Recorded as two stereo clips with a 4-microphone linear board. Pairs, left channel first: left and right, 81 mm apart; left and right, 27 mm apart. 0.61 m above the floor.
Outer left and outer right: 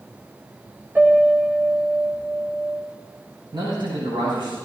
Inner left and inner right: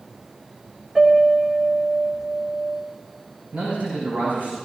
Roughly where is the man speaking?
Right.